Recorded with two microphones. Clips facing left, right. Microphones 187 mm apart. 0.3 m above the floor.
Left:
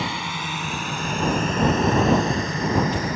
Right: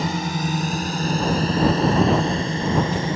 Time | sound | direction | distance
0.0 | a drone | 45° right (ahead or behind) | ?